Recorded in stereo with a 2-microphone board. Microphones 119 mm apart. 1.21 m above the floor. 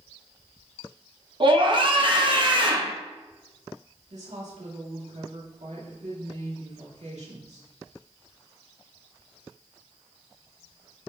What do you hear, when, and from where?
1.4 s a scream: 45° right (ahead or behind), 1.2 m
4.1 s a woman speaking: 75° right (ahead or behind), 2.5 m